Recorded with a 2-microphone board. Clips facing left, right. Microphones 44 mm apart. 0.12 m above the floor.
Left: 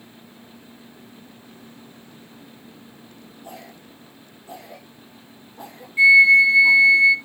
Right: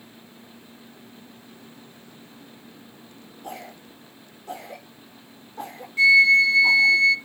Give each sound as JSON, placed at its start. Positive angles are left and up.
{"t": 3.4, "sound": "a cough", "side_deg": -60, "distance_m": 7.0}
{"t": 6.0, "sound": "a flute", "side_deg": 20, "distance_m": 1.0}